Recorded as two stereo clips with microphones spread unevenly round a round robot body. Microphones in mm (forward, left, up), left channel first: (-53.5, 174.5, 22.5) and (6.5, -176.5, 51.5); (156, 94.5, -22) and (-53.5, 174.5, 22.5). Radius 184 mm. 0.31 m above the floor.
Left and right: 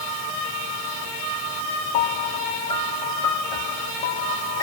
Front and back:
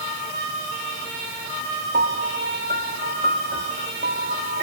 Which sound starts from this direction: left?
A piano, at 1.9 s.